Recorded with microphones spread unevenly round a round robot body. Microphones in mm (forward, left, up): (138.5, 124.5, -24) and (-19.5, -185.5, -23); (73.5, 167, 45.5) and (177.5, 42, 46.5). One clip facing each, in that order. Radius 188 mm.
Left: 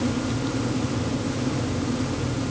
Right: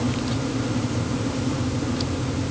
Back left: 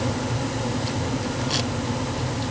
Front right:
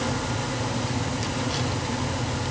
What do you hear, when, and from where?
Only background noise.